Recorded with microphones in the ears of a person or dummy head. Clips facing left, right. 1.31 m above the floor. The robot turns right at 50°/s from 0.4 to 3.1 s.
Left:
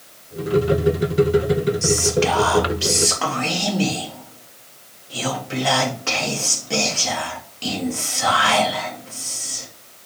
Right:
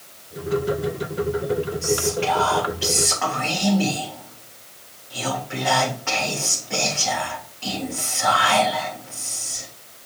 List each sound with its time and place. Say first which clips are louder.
1.8 s whispering: left 3 dB; 65° left, 1.2 m; by 9.7 s 130° left, 1.2 m